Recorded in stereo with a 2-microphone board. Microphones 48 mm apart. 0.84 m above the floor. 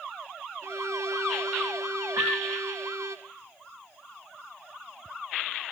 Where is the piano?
85° right, 3 m.